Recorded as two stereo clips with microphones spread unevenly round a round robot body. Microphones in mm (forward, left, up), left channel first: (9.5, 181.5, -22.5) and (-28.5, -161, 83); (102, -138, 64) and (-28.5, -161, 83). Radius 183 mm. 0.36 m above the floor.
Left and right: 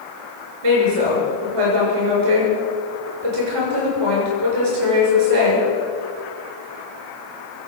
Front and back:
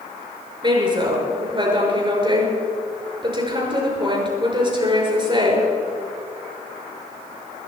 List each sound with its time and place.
0.6 s a woman speaking: 115° right, 6.5 m